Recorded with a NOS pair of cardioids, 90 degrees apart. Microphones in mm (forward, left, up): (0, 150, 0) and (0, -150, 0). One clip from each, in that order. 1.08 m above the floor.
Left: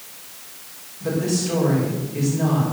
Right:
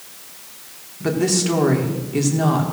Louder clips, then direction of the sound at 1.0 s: Right 4 dB; 65° right.